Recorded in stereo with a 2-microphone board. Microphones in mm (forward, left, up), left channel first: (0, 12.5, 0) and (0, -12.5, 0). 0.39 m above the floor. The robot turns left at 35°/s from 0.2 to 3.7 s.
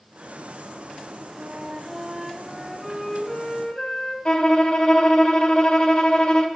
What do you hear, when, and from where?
1.4 s a flute: 135° right, 1.5 m; by 4.2 s 145° left, 1.5 m
4.2 s a violin: 40° left (ahead or behind), 1.2 m